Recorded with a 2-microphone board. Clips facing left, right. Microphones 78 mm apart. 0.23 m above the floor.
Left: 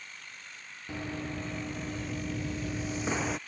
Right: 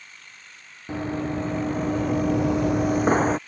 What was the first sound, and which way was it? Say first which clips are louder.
Running footsteps: right 10 dB; 30° right (ahead or behind).